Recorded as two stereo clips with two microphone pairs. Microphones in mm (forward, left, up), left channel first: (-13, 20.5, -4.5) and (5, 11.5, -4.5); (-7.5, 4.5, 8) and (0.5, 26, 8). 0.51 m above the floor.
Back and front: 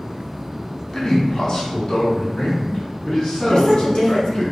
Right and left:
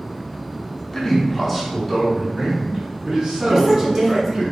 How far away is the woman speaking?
About 1.6 m.